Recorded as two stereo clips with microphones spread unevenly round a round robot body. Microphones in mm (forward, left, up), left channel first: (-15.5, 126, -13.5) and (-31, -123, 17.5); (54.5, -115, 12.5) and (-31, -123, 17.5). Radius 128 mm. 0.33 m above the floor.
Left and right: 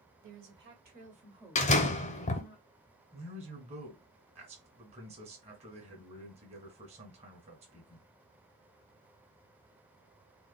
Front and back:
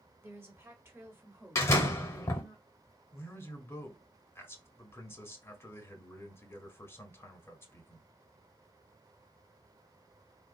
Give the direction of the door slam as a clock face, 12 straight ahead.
10 o'clock.